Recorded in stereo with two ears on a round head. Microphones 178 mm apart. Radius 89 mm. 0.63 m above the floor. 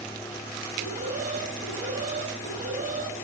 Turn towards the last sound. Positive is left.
turn(degrees=-40)  # may be behind; listen again after turning